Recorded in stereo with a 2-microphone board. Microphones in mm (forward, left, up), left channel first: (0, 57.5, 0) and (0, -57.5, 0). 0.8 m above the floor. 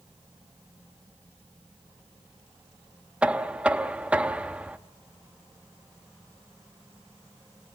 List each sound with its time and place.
3.2 s knocking: 10° right (ahead or behind), 0.7 m